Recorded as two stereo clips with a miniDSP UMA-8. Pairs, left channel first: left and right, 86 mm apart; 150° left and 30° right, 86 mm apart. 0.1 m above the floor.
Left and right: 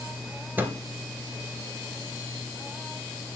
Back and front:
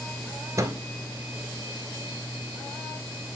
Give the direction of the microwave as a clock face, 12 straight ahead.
1 o'clock.